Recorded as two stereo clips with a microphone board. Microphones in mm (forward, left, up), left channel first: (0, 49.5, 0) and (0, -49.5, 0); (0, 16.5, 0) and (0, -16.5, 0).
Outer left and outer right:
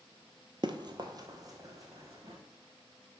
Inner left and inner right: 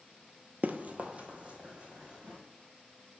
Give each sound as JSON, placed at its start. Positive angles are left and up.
{"t": 0.6, "sound": "running footsteps", "side_deg": -50, "distance_m": 0.7}